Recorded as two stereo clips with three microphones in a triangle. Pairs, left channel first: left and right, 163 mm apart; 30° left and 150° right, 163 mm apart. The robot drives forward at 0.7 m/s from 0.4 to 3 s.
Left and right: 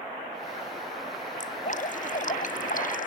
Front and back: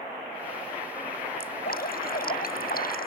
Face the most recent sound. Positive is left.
turn(degrees=55)